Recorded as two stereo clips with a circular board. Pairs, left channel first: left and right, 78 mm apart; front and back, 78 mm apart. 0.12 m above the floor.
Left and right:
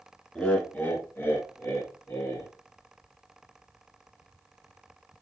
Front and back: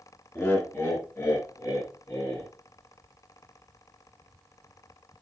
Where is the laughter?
20° left, 1.4 m; by 2.5 s 45° left, 2.5 m.